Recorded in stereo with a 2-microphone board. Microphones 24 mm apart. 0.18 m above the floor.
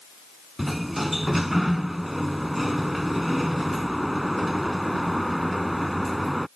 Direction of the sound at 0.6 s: 5° right (ahead or behind).